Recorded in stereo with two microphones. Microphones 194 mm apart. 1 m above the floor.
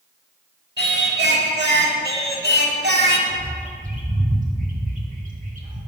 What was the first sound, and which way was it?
Singing, 60° right (ahead or behind).